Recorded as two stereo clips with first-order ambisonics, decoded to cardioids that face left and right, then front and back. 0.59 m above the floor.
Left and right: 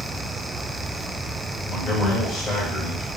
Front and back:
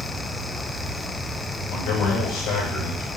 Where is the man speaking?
10° left, 2 m.